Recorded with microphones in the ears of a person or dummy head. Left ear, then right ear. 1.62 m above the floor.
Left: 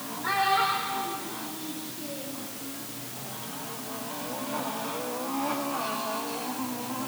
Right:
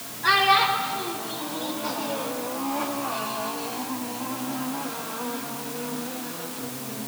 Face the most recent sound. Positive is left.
turn(degrees=-50)  # may be behind; listen again after turning